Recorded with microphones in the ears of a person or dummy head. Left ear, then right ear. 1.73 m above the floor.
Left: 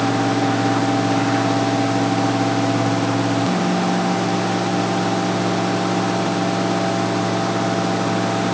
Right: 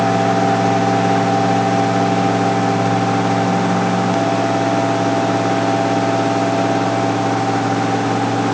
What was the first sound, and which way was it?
Only background noise.